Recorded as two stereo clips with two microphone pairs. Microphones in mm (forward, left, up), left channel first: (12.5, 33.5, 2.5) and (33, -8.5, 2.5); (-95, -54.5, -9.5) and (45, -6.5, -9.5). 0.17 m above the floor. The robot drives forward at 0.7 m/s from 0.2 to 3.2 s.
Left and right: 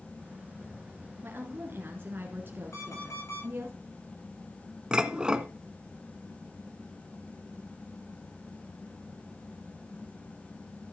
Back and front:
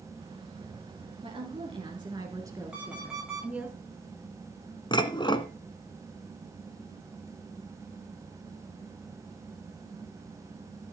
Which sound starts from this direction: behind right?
Dishes clattering, at 4.9 s.